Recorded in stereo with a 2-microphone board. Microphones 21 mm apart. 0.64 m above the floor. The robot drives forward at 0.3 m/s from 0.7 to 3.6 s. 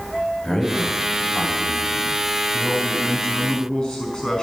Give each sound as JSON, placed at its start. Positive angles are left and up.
{"t": 0.4, "sound": "a man speaking", "side_deg": 25, "distance_m": 4.5}
{"t": 2.5, "sound": "a man speaking", "side_deg": 35, "distance_m": 5.0}